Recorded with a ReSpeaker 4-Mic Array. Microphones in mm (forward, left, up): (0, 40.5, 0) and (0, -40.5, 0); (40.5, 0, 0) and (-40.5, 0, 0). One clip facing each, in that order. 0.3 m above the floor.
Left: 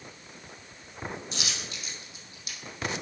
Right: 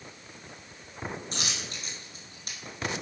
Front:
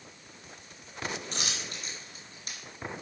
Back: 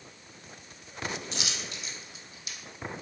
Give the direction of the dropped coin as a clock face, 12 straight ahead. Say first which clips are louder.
Right 1 dB, even; 2 o'clock.